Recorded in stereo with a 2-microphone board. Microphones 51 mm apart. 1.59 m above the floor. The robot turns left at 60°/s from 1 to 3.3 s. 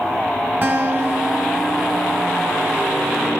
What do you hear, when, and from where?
0.6 s a guitar: 150° right, 5 m; by 3.0 s 95° left, 5 m